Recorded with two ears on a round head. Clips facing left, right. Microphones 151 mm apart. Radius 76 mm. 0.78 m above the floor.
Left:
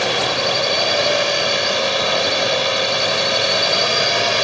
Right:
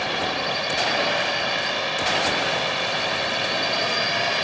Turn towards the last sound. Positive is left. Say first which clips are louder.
# left 6 dB
turn(degrees=60)  # may be behind; listen again after turning